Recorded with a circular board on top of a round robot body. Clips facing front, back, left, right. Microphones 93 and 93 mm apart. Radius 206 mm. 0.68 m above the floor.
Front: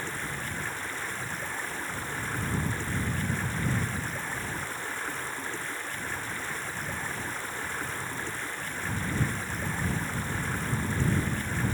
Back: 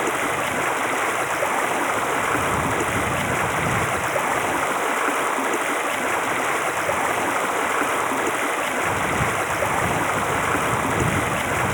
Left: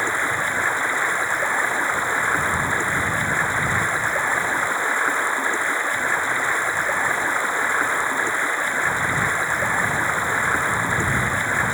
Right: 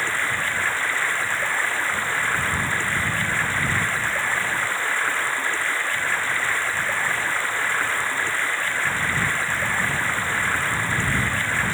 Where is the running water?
160° left.